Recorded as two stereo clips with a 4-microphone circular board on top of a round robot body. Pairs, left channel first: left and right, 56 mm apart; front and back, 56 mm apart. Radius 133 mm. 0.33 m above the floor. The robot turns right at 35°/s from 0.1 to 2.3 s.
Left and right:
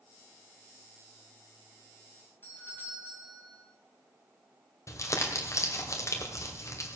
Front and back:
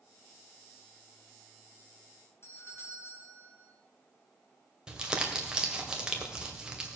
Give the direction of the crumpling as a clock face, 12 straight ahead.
9 o'clock.